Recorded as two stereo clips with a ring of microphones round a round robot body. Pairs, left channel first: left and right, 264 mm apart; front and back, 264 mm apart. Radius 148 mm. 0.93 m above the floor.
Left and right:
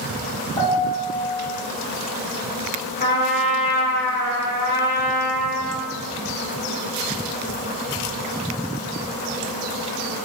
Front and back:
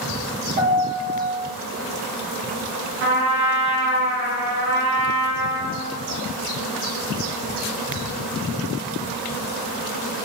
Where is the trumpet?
140° left, 0.9 m.